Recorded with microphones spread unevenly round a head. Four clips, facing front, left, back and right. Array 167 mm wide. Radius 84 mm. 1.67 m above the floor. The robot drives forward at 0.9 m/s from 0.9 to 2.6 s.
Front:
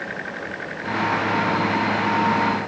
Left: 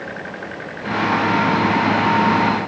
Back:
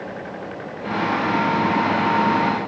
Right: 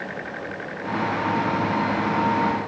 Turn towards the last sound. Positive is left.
No sound to turn to.